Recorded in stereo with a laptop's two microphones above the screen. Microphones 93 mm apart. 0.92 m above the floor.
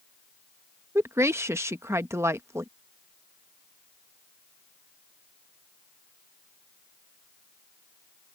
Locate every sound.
0.9 s a woman speaking: 30° right (ahead or behind)